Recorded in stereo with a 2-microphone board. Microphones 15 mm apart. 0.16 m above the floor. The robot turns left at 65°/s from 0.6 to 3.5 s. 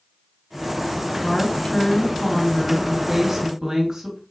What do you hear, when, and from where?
1.2 s a woman speaking: 115° left, 2.5 m; by 4.2 s 35° right, 2.5 m